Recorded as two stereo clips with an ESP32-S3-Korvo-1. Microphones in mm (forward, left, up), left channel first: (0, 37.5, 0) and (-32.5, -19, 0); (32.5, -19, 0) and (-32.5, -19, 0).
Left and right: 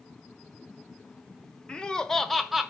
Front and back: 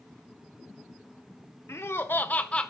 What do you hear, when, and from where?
1.7 s laughter: 10° right, 1.0 m; by 2.7 s 50° right, 0.8 m